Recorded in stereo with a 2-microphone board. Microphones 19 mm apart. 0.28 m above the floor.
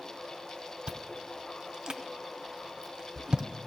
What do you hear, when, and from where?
0.9 s chewing: 55° right (ahead or behind), 0.6 m